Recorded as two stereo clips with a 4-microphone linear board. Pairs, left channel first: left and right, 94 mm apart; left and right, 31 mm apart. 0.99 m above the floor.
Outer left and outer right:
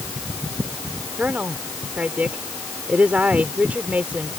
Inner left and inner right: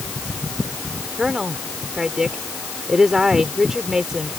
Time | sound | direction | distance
1.2 | a woman speaking | 15° right (ahead or behind) | ?